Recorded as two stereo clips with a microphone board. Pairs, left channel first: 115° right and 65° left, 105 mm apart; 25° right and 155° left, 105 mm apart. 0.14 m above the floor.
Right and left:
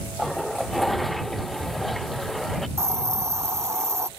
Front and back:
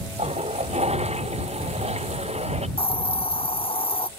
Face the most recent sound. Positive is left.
turn(degrees=5)